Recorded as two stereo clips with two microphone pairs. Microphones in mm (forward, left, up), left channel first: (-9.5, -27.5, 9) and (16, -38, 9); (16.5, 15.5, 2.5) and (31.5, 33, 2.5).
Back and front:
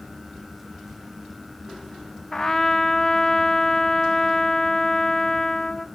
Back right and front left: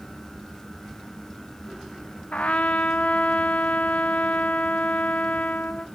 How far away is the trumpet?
About 0.6 m.